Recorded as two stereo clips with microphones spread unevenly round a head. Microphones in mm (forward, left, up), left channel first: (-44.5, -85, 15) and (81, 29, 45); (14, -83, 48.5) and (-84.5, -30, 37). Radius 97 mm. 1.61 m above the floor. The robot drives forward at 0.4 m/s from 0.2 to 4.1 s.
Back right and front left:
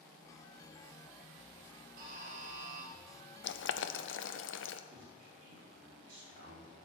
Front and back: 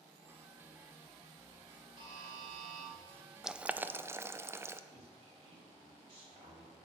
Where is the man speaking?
95° left, 4.5 m.